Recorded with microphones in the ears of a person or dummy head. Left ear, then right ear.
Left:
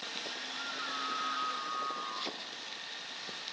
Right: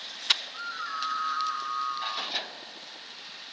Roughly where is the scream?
Right.